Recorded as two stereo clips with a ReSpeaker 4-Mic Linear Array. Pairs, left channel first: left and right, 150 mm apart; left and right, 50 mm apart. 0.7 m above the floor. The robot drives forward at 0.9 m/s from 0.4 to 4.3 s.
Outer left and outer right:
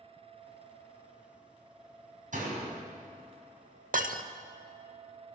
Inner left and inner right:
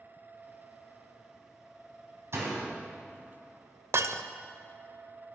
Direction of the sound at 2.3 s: 60° right (ahead or behind).